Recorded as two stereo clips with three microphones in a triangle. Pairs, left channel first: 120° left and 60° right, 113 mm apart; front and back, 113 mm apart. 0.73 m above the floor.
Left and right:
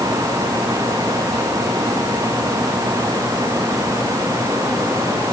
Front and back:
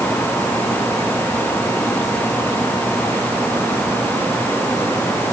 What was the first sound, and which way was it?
Only background noise.